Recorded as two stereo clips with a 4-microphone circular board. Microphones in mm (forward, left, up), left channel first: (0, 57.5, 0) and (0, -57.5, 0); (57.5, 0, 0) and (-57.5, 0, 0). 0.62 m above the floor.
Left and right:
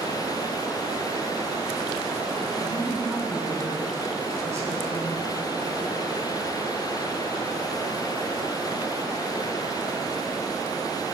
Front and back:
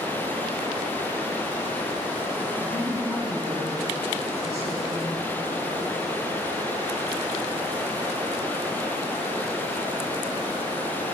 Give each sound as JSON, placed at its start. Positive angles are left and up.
{"t": 2.5, "sound": "a man speaking", "azimuth_deg": -145, "distance_m": 5.5}